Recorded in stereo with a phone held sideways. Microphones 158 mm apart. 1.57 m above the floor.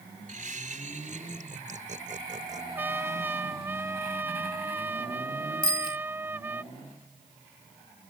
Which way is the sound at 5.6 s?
65° left (ahead or behind).